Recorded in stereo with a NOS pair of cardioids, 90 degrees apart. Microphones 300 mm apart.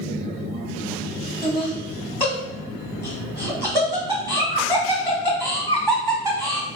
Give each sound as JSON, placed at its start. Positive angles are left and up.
{"t": 1.4, "sound": "laughter", "azimuth_deg": 0, "distance_m": 1.1}